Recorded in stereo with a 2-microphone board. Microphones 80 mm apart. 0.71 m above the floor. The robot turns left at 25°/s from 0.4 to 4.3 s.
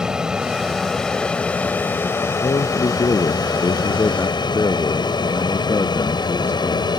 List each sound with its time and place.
0.0 s an aircraft: 10° right (ahead or behind); by 7.0 s 65° left (ahead or behind)
2.4 s a man speaking: 85° left; by 6.9 s 40° left